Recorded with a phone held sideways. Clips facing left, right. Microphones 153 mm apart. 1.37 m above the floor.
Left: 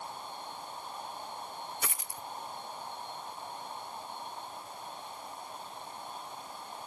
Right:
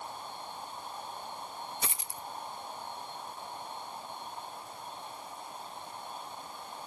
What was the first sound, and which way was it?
A dropped coin, 25° right (ahead or behind).